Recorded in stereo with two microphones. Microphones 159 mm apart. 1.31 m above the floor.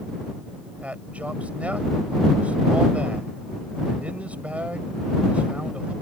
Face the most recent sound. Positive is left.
turn(degrees=-10)  # may be behind; listen again after turning